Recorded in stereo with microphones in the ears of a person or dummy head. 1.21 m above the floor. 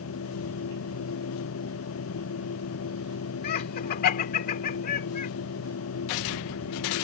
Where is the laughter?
50° left (ahead or behind).